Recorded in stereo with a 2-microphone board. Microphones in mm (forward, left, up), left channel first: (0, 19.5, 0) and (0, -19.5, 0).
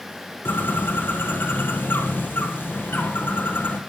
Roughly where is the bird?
Left.